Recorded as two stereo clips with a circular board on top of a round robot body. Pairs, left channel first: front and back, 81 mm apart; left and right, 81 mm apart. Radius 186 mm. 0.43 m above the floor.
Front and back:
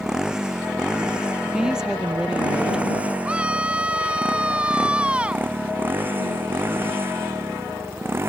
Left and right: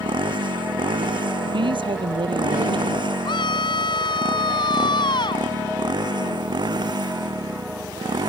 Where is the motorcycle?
95° right; by 8.3 s 120° right.